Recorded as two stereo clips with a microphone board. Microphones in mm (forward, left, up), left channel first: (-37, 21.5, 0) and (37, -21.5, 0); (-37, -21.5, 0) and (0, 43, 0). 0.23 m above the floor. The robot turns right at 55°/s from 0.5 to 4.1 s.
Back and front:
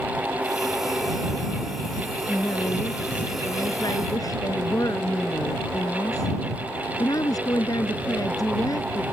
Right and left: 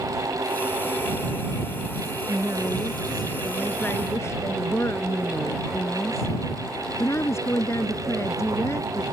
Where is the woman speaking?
90° left; by 9.0 s 170° right.